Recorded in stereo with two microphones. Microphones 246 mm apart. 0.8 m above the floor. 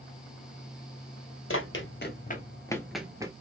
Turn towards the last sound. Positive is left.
turn(degrees=-15)  # may be behind; listen again after turning